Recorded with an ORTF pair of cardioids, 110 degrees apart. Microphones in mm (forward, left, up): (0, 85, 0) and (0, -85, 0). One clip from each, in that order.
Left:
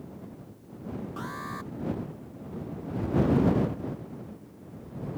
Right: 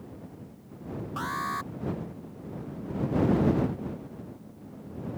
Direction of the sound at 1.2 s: 40° right.